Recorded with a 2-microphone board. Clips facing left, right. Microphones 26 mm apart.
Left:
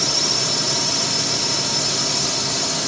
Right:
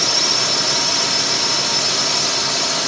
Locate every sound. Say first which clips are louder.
0.0 s a drone: right 3 dB; 20° right (ahead or behind)